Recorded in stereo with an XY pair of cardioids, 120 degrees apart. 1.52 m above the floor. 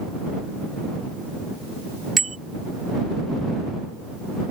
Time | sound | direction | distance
2.2 | a bicycle bell | 30° right | ?